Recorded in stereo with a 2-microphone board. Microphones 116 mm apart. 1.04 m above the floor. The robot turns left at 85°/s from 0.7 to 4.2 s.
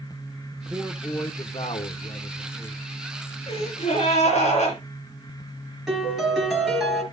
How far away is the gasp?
About 7.5 m.